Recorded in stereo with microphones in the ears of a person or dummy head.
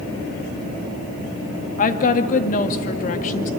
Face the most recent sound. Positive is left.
turn(degrees=45)  # may be behind; listen again after turning